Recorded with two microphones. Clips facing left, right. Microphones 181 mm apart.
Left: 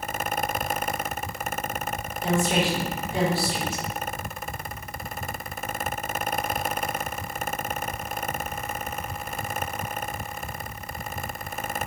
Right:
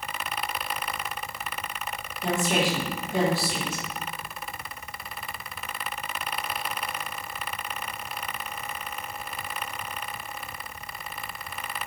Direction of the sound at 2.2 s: 20° right (ahead or behind).